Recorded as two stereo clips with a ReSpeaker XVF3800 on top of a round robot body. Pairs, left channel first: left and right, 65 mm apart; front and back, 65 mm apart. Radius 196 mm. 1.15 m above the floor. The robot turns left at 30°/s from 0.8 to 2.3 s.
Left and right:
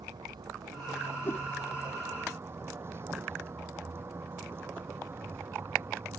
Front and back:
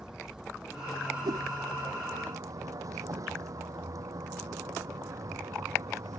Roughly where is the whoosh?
Behind left.